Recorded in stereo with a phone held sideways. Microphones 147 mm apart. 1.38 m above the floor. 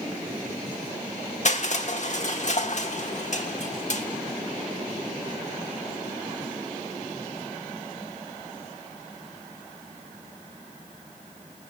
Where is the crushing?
55° left (ahead or behind), 1.5 m.